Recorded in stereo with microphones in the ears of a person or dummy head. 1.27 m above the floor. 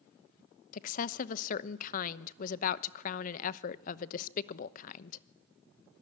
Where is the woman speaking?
50° left (ahead or behind), 0.9 m.